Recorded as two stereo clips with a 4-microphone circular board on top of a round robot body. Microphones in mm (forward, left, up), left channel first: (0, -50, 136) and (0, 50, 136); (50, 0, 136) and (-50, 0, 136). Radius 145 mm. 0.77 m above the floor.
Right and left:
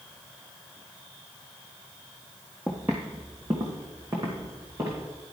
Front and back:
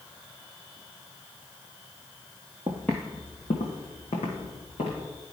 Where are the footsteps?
165° right, 0.8 m; by 5.0 s 25° left, 3.5 m.